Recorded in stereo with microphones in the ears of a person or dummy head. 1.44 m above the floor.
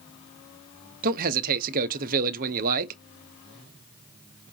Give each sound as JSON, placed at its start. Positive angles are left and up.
{"t": 1.0, "sound": "a man speaking", "side_deg": -45, "distance_m": 0.7}